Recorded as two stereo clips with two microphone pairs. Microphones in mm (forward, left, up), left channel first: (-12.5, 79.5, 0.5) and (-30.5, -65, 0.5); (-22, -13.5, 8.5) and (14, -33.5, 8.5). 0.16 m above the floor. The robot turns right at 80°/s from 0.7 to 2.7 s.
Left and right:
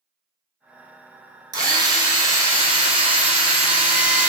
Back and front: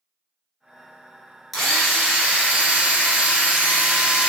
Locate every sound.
1.5 s a drill: 120° right, 1.4 m; by 4.3 s 30° right, 1.4 m